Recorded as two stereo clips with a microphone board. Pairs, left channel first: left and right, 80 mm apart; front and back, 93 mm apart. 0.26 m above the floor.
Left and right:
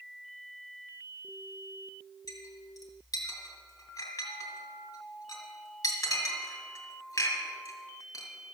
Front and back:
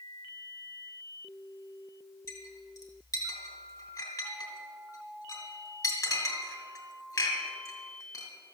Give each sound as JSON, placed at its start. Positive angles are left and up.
{"t": 2.3, "sound": "a clink", "azimuth_deg": 45, "distance_m": 2.5}